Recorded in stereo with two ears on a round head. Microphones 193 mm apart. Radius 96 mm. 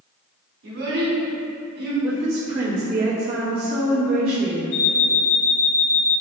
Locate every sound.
0.6 s a child speaking: 60° right (ahead or behind), 1.1 m
2.0 s a woman speaking: 30° right (ahead or behind), 1.0 m
4.7 s an alarm clock: 85° left, 2.0 m